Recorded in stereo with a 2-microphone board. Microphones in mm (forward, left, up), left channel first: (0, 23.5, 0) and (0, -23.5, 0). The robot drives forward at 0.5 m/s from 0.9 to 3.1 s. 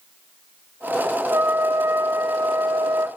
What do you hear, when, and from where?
1.3 s a trumpet: 65° right (ahead or behind), 1.4 m; by 3.1 s 75° right (ahead or behind), 1.3 m